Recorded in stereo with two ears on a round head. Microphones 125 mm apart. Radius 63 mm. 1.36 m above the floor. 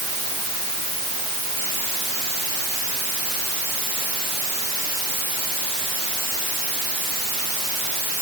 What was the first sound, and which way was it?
Only background noise.